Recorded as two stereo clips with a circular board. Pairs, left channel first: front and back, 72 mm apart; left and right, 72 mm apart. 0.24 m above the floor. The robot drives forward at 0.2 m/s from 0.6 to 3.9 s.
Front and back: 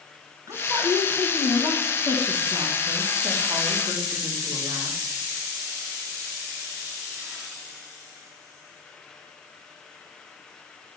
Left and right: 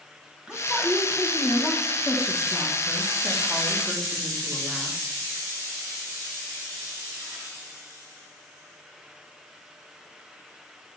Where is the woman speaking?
165° right, 1.6 m; by 5.0 s 170° right, 2 m.